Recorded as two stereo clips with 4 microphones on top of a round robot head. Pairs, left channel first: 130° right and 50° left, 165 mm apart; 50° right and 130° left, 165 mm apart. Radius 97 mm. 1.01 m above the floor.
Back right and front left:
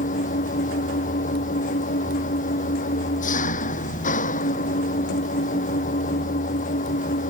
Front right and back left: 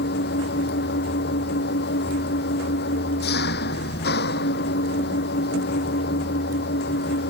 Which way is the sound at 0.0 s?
85° right.